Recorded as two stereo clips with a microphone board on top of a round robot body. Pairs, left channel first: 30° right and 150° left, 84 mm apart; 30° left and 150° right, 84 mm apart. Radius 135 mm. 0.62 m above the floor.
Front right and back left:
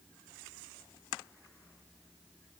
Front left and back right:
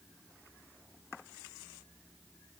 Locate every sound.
Only background noise.